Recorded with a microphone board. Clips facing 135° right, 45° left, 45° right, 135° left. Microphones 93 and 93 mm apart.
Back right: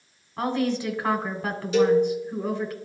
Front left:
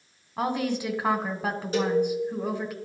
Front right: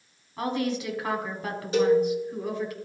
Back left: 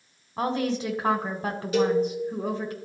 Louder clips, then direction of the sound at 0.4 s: Back right 2 dB, back left 2 dB; 110° left.